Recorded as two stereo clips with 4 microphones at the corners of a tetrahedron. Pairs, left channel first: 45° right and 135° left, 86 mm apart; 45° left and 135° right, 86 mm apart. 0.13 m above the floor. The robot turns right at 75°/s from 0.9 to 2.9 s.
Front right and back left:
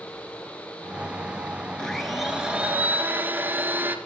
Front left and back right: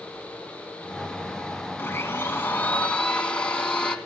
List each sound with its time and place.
1.8 s a blender: 25° left, 1.6 m; by 4.0 s 105° left, 1.6 m